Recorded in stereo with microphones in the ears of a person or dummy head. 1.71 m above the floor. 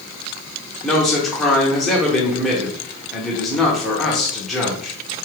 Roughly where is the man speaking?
Centre.